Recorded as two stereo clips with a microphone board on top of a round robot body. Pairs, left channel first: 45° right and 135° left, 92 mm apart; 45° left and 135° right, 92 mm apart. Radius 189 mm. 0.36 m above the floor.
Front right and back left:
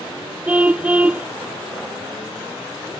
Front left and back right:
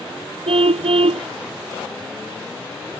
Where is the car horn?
150° right.